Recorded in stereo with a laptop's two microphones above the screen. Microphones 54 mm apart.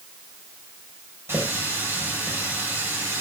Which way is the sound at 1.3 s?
50° right (ahead or behind).